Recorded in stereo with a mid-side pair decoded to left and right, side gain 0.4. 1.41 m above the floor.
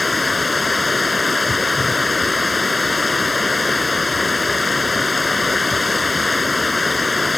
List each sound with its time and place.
0.0 s running water: 25° left